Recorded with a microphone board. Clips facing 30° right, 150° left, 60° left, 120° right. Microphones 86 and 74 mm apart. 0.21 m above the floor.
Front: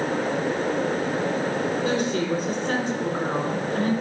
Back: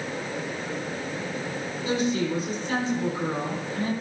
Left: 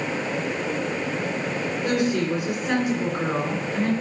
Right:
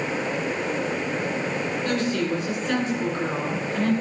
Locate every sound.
1.8 s a woman speaking: 15° right, 3 m